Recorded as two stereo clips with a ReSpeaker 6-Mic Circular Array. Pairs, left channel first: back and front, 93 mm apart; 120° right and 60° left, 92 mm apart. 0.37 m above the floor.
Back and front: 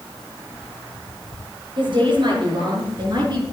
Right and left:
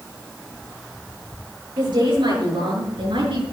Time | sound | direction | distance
1.8 | a woman speaking | 25° left | 6 m